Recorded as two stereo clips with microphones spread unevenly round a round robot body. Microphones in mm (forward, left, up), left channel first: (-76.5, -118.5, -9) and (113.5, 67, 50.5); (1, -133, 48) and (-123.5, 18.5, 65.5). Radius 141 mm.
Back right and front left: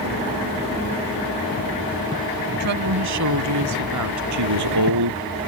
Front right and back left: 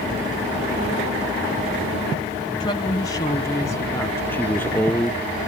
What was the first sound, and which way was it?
A woman speaking, 20° left.